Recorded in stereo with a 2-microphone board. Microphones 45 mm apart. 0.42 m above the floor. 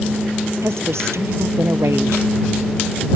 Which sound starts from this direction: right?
A woman speaking, at 0.6 s.